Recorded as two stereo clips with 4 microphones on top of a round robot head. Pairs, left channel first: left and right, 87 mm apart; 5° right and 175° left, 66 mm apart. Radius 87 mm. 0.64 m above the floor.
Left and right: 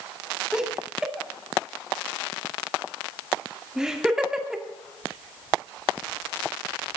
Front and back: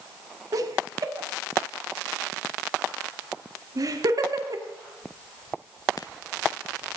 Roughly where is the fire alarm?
No fire alarm in this recording.